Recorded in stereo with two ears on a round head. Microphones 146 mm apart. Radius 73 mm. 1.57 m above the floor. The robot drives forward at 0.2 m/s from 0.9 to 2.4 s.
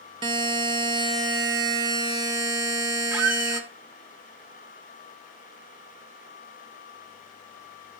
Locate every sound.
0.2 s a buzzer: 25° right (ahead or behind), 0.8 m
3.1 s a squeak: 10° right (ahead or behind), 0.8 m